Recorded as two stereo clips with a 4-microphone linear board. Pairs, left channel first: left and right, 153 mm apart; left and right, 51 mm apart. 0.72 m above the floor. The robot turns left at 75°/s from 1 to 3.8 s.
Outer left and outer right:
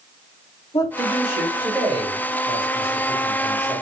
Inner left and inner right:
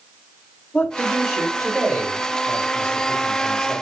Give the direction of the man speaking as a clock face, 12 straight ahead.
11 o'clock.